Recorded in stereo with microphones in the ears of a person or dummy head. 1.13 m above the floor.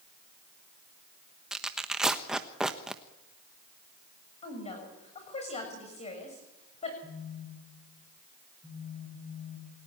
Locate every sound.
1.5 s tearing paper: 5° right (ahead or behind), 1.1 m
4.4 s a woman speaking: 35° left (ahead or behind), 7 m
7.0 s a phone buzzing: centre (ahead or behind), 4.5 m